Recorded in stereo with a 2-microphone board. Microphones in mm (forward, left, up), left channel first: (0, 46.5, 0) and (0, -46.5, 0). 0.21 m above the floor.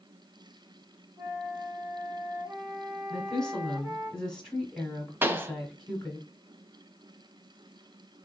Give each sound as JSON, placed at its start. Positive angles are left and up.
{"t": 1.2, "sound": "a flute", "side_deg": -25, "distance_m": 2.5}
{"t": 3.1, "sound": "a woman speaking", "side_deg": 5, "distance_m": 1.3}
{"t": 5.2, "sound": "a pop", "side_deg": -25, "distance_m": 0.6}